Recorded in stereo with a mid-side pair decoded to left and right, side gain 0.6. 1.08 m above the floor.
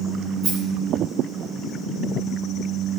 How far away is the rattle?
About 4 m.